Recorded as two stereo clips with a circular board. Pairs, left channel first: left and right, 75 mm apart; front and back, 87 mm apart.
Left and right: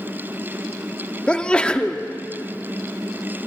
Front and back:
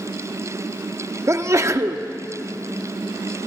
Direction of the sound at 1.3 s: 160° left.